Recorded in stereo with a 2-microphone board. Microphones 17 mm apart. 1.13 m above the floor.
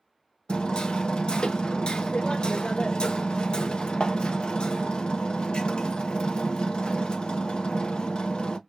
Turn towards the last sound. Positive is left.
turn(degrees=65)  # may be behind; listen again after turning